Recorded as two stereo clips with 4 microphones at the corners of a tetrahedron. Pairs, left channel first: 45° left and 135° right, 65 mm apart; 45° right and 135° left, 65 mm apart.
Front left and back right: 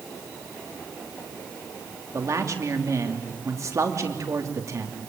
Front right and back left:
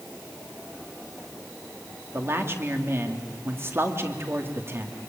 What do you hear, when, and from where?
2.1 s a man speaking: 175° right, 2.5 m